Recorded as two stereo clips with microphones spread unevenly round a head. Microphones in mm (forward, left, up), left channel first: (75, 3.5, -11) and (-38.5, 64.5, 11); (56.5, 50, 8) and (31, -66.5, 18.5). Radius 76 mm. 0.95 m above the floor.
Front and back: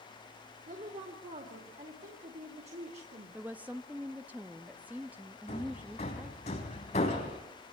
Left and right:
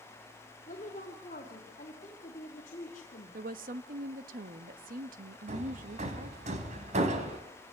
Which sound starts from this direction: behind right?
A woman speaking, at 3.3 s.